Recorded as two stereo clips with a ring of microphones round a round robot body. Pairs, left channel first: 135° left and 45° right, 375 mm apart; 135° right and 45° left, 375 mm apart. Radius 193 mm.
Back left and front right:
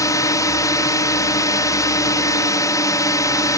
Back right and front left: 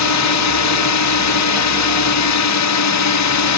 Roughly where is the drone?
Behind right.